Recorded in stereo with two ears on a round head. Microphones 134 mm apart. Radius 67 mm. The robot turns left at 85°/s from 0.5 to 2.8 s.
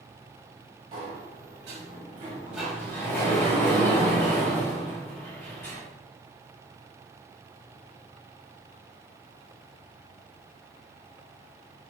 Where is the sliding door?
35° right, 3.5 m; by 5.8 s 165° left, 3.5 m.